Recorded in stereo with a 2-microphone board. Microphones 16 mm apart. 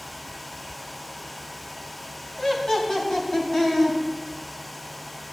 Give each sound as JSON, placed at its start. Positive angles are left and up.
{"t": 2.4, "sound": "laughter", "side_deg": 35, "distance_m": 2.0}